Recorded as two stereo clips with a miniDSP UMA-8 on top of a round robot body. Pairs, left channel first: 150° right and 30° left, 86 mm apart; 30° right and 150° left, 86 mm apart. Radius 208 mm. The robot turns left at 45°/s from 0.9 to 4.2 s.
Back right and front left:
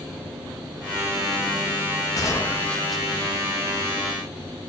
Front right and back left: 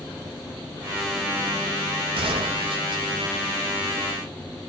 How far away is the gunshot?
About 0.5 m.